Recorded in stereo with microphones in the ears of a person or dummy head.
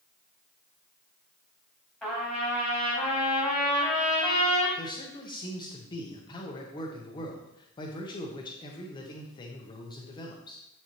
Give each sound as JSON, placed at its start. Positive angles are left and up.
{"t": 2.0, "sound": "a trumpet", "side_deg": 0, "distance_m": 3.5}
{"t": 4.8, "sound": "a man speaking", "side_deg": 25, "distance_m": 1.1}